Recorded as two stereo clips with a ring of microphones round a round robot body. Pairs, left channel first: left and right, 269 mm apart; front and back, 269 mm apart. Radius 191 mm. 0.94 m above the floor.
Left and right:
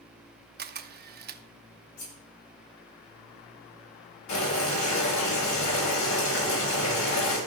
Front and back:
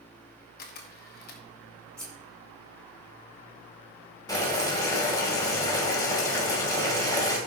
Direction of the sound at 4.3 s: 80° left.